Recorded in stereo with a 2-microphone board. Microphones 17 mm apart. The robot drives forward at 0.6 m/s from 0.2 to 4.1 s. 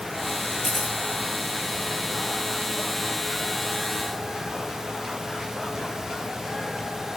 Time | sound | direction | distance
0.6 | a camera shutter | 10° left (ahead or behind) | 9.5 m